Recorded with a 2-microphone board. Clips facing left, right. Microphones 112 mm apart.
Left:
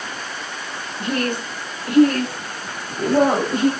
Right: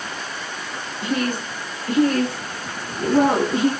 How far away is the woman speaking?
About 2 m.